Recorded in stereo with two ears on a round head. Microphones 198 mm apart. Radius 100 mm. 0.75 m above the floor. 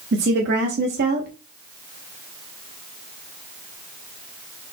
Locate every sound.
0.1 s a woman speaking: 45° right (ahead or behind), 0.8 m